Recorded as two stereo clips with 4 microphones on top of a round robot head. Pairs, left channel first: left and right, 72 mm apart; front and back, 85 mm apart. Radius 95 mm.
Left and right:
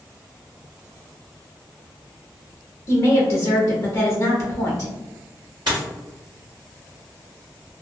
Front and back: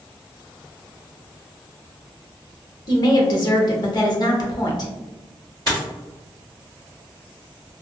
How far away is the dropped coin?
About 1.3 m.